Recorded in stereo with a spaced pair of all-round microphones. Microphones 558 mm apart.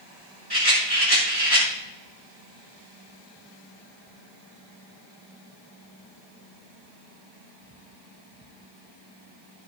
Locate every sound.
0.5 s a rattle: 40° right (ahead or behind), 6.5 m